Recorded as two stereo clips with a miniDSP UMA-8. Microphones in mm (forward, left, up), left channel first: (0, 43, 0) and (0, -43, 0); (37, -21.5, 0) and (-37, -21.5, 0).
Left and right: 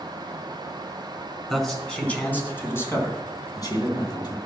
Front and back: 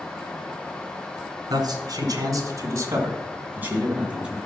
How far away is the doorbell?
I don't hear a doorbell.